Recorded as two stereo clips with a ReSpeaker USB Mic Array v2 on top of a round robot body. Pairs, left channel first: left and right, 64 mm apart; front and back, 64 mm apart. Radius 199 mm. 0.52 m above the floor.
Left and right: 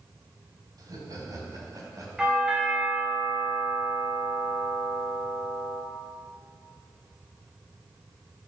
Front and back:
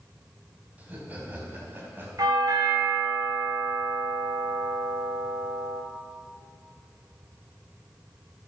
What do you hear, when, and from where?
0.8 s laughter: 110° right, 4.5 m; by 2.1 s 120° right, 4.5 m
2.2 s a doorbell: 165° right, 4 m